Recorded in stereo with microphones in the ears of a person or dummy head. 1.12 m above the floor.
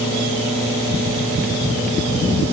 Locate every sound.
Only background noise.